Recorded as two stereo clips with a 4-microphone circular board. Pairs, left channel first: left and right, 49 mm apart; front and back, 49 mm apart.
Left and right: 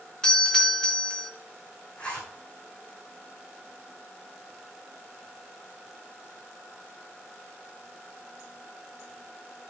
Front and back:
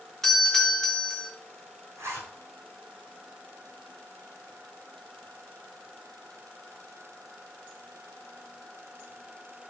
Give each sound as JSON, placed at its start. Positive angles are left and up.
{"t": 0.2, "sound": "a doorbell", "azimuth_deg": 60, "distance_m": 1.2}
{"t": 2.0, "sound": "a zipper", "azimuth_deg": 160, "distance_m": 4.5}